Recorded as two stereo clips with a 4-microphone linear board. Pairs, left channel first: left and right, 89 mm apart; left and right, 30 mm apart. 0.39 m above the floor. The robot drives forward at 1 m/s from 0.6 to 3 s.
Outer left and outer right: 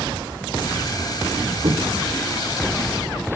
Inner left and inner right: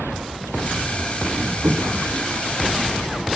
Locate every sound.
1.6 s footsteps: 80° right, 2.5 m; by 3.0 s 50° right (ahead or behind), 5 m